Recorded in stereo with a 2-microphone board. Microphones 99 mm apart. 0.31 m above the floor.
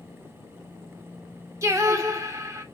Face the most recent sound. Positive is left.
turn(degrees=-30)  # may be behind; listen again after turning